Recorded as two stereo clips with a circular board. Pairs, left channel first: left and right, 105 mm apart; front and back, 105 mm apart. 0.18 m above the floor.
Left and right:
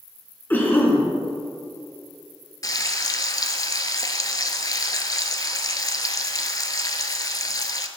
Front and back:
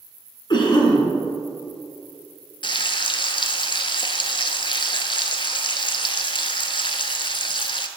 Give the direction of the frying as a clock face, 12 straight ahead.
11 o'clock.